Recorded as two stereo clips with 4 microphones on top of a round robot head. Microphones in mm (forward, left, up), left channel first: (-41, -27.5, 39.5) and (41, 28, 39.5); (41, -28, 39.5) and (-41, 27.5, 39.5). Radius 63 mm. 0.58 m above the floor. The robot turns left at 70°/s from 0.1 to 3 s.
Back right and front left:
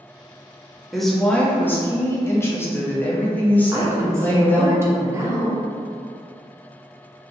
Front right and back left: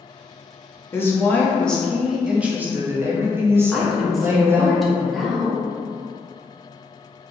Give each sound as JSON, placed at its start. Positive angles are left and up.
{"t": 0.9, "sound": "a woman speaking", "azimuth_deg": -50, "distance_m": 0.6}
{"t": 3.7, "sound": "a woman speaking", "azimuth_deg": 55, "distance_m": 0.7}